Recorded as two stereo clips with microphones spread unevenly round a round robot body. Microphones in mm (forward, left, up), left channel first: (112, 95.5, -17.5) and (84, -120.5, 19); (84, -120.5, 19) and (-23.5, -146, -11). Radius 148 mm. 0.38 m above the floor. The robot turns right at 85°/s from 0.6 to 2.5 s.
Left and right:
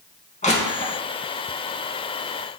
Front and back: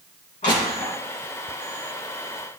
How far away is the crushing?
About 2.5 m.